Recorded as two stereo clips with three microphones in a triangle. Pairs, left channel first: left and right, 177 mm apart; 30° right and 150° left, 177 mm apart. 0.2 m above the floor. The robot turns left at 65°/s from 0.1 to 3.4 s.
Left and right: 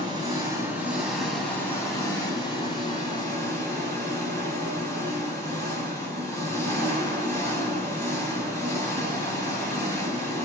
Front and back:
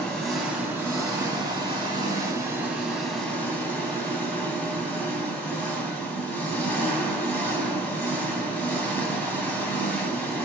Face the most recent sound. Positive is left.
turn(degrees=40)